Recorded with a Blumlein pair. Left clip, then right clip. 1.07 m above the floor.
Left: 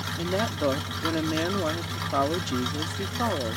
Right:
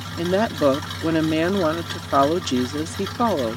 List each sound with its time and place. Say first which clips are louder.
0.2 s a woman speaking: right 8 dB; 65° right